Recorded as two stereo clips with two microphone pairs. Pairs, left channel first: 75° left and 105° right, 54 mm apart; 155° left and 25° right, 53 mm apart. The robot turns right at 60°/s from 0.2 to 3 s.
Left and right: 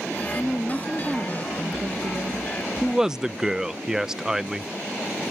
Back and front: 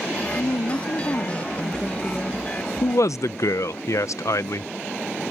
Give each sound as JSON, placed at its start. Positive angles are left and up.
{"t": 0.3, "sound": "a woman speaking", "azimuth_deg": 135}
{"t": 2.8, "sound": "a man speaking", "azimuth_deg": 160}